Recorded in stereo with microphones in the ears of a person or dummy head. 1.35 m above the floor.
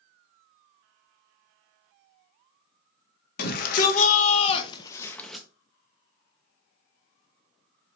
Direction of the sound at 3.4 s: 60° left (ahead or behind).